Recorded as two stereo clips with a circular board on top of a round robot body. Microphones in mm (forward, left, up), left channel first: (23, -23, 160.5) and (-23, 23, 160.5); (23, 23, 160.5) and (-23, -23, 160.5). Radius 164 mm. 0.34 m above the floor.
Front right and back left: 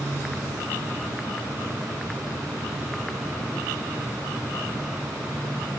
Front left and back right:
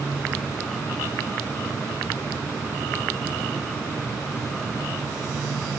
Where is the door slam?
No door slam in this recording.